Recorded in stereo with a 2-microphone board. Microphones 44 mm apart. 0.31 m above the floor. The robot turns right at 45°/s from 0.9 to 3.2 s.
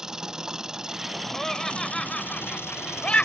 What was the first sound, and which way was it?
An engine running, 15° right.